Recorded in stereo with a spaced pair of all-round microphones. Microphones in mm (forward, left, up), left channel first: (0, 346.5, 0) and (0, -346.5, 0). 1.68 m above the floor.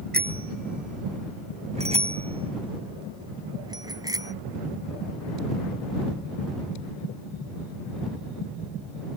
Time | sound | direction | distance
0.1 | a bicycle bell | 15° right (ahead or behind) | ?